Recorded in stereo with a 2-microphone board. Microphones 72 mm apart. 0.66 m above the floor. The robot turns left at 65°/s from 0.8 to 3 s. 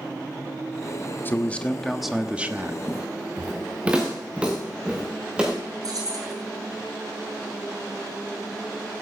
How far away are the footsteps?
About 3 m.